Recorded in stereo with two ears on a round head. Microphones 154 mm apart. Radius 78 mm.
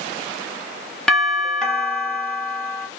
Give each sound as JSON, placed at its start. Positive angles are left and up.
{"t": 1.1, "sound": "a doorbell", "side_deg": 5, "distance_m": 0.8}